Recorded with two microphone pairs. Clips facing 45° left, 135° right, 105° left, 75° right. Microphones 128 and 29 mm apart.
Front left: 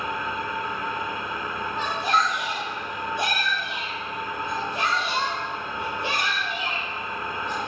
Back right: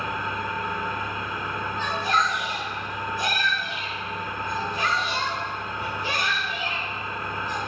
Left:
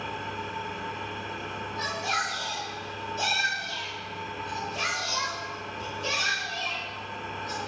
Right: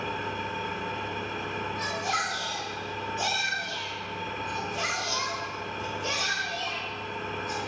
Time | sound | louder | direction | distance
0.0 | an engine running | even, right 2 dB | 40° right | 2 m
1.8 | a shout | front left 1 dB, left 2 dB | 40° left | 4.5 m